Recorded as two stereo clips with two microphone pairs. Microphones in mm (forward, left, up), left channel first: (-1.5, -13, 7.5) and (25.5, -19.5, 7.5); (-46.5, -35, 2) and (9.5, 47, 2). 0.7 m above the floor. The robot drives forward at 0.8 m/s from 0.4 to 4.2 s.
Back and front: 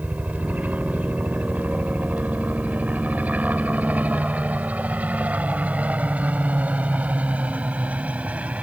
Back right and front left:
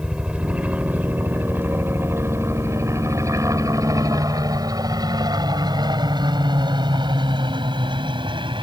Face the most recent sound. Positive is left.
turn(degrees=20)